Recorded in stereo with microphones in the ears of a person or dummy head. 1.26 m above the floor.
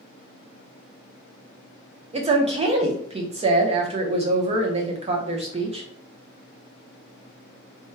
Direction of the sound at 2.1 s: 30° right (ahead or behind).